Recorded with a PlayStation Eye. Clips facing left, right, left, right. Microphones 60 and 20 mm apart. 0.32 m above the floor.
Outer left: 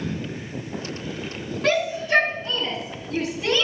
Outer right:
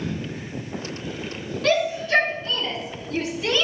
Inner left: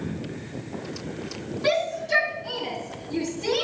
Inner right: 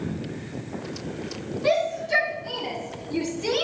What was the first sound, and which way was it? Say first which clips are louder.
A shout: outer right 1 dB, inner right 1 dB; 20° left (ahead or behind).